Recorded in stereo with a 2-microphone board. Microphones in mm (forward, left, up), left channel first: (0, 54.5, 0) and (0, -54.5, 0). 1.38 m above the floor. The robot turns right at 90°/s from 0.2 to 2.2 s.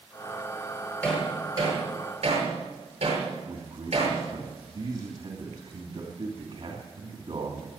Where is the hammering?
15° left (ahead or behind), 7.5 m; by 4.2 s 80° right, 7.5 m.